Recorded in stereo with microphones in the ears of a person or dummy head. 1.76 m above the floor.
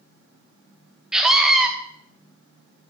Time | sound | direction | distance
1.1 | a scream | 5° right (ahead or behind) | 0.8 m